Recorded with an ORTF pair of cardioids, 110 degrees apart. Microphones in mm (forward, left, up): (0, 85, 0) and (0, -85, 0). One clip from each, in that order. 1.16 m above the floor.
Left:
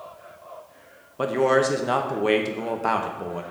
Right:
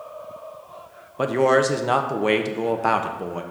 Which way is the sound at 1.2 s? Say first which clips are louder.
Right 2 dB; 10° right.